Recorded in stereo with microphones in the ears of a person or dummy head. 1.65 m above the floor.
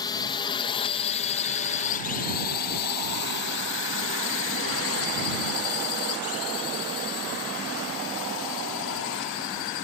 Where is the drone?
25° left (ahead or behind); by 9.8 s 65° left (ahead or behind).